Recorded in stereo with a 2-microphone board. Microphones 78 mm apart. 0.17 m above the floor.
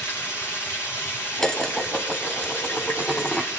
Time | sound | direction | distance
0.0 | running water | 35° left (ahead or behind) | 5 m
1.4 | dishes clattering | 5° left (ahead or behind) | 0.8 m